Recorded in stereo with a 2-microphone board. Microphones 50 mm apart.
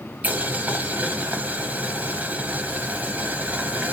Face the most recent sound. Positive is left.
turn(degrees=-30)  # may be behind; listen again after turning